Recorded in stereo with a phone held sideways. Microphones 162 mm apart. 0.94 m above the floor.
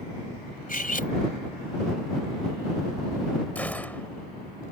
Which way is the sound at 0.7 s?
55° left (ahead or behind).